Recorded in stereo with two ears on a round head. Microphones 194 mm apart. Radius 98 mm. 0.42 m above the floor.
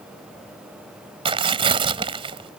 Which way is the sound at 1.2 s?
25° right (ahead or behind).